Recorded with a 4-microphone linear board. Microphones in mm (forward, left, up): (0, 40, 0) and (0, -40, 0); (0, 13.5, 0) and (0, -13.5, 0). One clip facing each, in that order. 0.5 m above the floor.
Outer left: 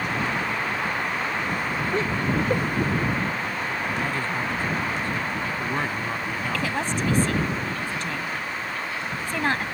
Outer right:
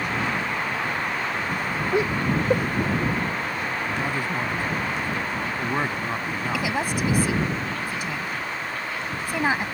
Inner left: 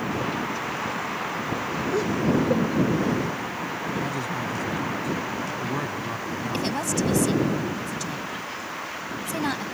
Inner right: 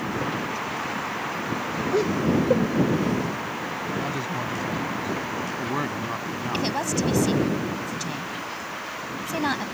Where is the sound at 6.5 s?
10° right (ahead or behind).